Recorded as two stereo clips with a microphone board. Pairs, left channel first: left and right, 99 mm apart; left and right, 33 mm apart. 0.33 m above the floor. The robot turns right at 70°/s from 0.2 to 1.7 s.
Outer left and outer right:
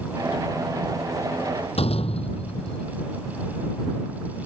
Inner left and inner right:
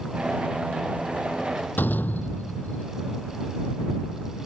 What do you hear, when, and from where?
1.8 s a door slam: 85° left